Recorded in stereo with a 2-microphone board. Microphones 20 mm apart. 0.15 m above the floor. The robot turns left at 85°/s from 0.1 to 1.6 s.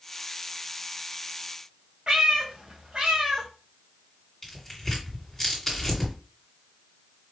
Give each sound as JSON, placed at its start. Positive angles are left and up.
{"t": 2.1, "sound": "a cat meowing", "side_deg": -45, "distance_m": 1.9}
{"t": 4.4, "sound": "tearing paper", "side_deg": 10, "distance_m": 1.8}